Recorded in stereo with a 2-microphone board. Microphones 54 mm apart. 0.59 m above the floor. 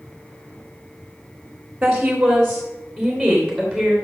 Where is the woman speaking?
5° right (ahead or behind), 1.8 m; by 3.9 s 15° left (ahead or behind), 3.5 m.